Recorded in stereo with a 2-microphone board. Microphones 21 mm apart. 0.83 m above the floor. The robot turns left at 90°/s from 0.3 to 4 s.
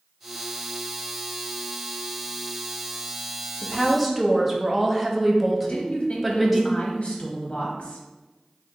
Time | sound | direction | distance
3.6 | a woman speaking | 35° left | 0.7 m
5.6 | a woman speaking | 60° left (ahead or behind) | 0.9 m